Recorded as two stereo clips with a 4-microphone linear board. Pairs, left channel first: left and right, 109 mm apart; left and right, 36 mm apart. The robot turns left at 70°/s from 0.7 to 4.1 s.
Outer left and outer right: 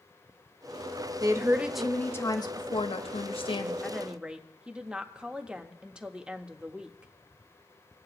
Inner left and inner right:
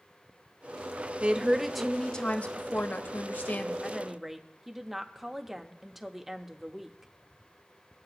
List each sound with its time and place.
1.2 s a woman speaking: 140° right, 0.8 m; by 3.7 s 45° left, 0.8 m
3.8 s a woman speaking: 10° left (ahead or behind), 0.8 m; by 7.1 s 10° right (ahead or behind), 0.8 m